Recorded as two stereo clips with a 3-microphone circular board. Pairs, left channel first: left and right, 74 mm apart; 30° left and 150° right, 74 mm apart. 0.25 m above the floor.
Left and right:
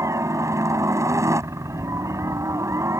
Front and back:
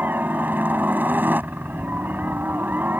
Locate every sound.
0.0 s a helicopter: 100° right